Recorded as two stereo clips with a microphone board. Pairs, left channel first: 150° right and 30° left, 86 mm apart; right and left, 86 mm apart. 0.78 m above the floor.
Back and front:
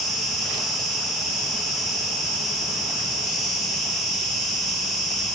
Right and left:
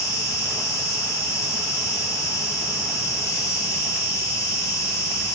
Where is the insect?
60° right, 1.3 m.